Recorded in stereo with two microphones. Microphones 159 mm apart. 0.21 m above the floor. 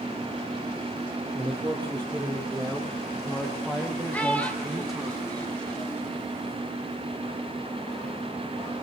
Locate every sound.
1.4 s a man speaking: 30° right (ahead or behind), 5 m; by 5.1 s 10° right (ahead or behind), 7 m
4.1 s a child speaking: 10° left (ahead or behind), 3.5 m